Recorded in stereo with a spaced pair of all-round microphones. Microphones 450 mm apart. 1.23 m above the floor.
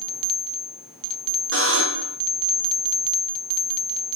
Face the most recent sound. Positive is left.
turn(degrees=-30)  # may be behind; listen again after turning